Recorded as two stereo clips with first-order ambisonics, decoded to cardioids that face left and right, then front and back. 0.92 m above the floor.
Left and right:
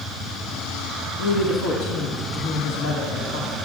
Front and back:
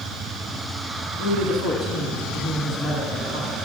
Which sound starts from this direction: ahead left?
A woman speaking, at 1.2 s.